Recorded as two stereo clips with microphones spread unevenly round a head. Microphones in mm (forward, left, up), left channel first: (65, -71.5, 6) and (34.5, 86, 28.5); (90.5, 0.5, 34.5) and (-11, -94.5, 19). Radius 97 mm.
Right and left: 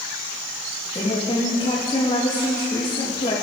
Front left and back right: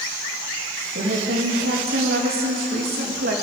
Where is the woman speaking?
145° right, 2 m.